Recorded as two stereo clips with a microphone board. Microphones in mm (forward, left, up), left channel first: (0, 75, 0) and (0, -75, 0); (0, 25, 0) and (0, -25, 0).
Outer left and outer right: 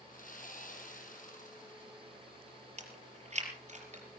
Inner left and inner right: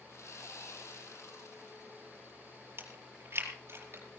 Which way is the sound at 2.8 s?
50° right (ahead or behind).